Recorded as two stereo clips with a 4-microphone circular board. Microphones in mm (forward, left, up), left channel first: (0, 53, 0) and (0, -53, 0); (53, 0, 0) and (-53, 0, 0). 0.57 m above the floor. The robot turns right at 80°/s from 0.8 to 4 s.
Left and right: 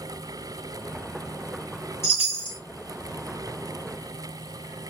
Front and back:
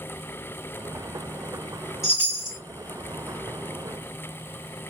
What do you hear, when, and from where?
2.0 s a chime: 95° left, 2 m; by 2.6 s 140° left, 2 m